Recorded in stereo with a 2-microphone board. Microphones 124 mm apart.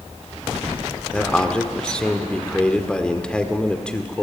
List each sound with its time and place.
1.1 s a man speaking: 10° left (ahead or behind), 1.5 m